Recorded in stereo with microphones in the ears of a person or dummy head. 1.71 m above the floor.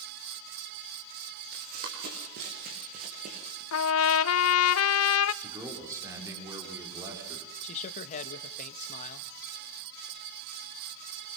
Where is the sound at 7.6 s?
45° left (ahead or behind), 1.7 m.